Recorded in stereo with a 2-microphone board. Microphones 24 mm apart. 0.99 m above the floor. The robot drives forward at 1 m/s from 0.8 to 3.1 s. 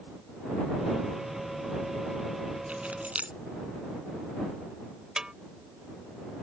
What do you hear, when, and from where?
2.7 s keys jangling: 85° right; by 3.4 s 90° right
5.2 s a snare drum: 30° right (ahead or behind)